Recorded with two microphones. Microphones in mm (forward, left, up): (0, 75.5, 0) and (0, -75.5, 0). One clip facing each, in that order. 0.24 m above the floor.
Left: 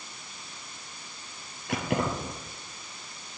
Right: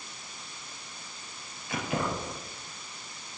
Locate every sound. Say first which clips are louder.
1.7 s keys jangling: left 3 dB; 65° left (ahead or behind), 4 m